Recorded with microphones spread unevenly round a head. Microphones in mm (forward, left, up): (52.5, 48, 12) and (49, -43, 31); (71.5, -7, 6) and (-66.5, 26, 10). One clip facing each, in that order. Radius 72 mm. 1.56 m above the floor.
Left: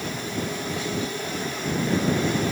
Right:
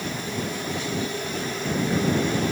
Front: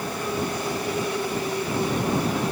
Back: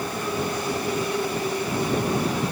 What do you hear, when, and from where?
Only background noise.